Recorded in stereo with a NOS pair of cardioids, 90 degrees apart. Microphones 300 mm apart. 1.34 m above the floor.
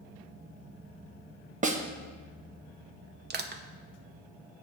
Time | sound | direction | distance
1.6 | a snare drum | 25° right | 1.1 m
3.3 | crushing | 35° right | 0.8 m